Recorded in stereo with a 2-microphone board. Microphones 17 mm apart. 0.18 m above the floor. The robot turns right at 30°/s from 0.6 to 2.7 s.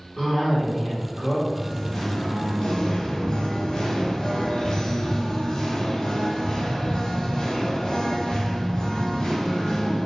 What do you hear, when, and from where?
0.2 s a cough: 20° left (ahead or behind), 1.1 m; by 1.4 s 5° left (ahead or behind), 1.1 m
1.5 s singing: 20° left, 0.8 m; by 10.1 s 55° left, 0.8 m